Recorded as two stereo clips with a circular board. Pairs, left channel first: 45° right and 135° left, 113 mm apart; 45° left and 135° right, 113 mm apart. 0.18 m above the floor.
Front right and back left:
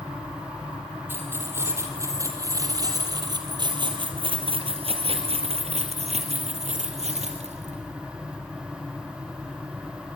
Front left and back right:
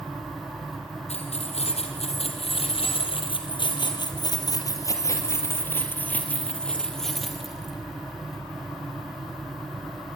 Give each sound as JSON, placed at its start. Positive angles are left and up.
{"t": 1.1, "sound": "keys jangling", "azimuth_deg": 65, "distance_m": 3.5}